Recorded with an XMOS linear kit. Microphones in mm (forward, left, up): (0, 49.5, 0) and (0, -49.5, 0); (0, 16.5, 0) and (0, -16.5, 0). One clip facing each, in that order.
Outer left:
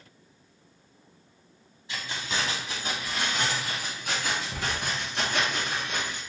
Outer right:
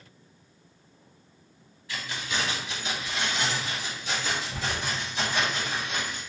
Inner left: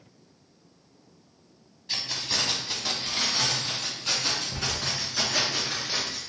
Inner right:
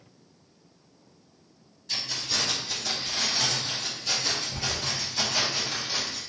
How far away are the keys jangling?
About 1.0 m.